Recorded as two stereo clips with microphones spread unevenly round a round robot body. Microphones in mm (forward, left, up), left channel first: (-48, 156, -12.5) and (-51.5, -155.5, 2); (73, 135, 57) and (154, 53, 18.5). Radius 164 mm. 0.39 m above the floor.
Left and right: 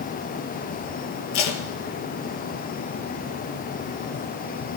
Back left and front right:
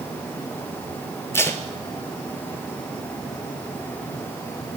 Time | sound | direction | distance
1.3 | tape being pulled | 65° left | 1.5 m